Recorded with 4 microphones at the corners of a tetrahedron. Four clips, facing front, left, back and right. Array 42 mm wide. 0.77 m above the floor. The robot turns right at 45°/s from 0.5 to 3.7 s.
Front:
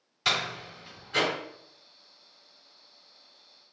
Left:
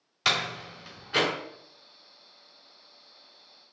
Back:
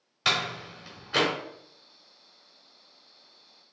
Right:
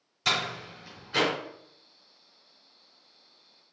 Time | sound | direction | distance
0.2 | a door slam | 115° left | 2 m